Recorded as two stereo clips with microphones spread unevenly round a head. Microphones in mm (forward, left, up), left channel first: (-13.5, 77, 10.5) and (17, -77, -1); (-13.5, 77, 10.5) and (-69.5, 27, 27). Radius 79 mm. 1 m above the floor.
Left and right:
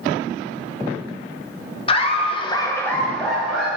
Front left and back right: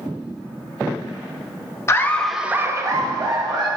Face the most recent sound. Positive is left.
turn(degrees=-165)